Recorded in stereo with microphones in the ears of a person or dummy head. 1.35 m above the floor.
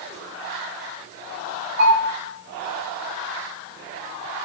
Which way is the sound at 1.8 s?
45° right (ahead or behind).